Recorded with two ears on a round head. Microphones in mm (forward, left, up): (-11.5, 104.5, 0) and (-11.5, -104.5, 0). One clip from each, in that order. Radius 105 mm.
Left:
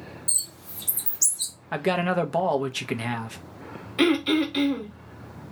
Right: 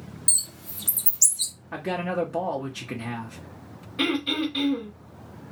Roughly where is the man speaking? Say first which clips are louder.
Left 5 dB; left.